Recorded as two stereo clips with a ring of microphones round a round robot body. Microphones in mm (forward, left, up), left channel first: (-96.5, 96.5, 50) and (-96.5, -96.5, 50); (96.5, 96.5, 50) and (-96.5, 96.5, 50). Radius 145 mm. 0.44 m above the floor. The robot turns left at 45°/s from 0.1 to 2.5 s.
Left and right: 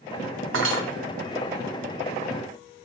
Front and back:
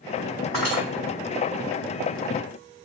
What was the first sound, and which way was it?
Cutlery clinking, 85° right.